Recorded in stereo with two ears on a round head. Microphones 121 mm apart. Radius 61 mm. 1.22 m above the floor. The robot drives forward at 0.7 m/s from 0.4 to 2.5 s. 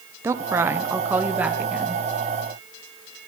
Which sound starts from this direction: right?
A woman speaking, at 0.2 s.